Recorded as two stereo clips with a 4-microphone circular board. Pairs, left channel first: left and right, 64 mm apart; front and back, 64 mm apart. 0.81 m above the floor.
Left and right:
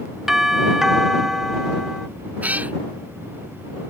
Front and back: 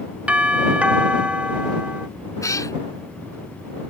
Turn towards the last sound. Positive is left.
turn(degrees=-25)